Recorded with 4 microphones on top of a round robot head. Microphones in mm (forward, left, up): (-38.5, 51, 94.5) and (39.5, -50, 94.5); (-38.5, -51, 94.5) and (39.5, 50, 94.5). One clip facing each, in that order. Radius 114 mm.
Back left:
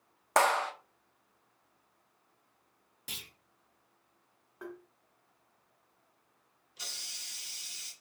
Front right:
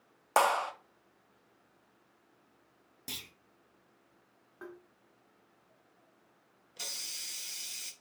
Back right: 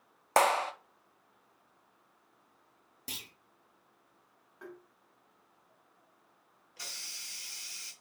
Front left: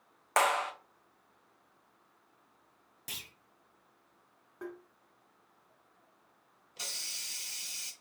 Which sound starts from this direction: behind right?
A clap, at 0.4 s.